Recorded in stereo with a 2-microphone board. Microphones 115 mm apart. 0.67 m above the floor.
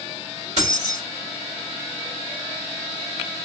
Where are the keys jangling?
70° right (ahead or behind), 1.7 m.